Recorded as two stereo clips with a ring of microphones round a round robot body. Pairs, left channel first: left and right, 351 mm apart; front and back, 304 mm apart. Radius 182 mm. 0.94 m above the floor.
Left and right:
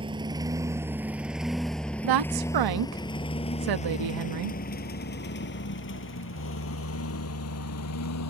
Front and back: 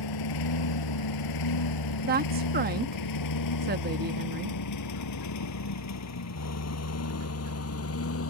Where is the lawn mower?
15° right; by 8.3 s 45° left.